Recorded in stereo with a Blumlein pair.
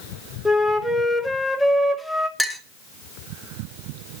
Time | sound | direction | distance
0.5 | a flute | 5° right | 0.8 m
2.4 | a clink | 5° right | 0.7 m